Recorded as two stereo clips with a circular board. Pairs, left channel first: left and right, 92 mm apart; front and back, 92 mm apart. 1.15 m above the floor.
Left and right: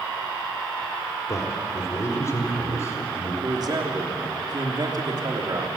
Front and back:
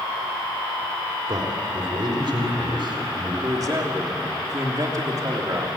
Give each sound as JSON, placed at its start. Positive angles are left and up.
{"t": 1.3, "sound": "a man speaking", "azimuth_deg": 145, "distance_m": 3.0}
{"t": 3.4, "sound": "a man speaking", "azimuth_deg": -130, "distance_m": 3.0}